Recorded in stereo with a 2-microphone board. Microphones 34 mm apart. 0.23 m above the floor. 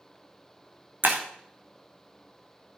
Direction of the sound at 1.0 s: 65° right (ahead or behind).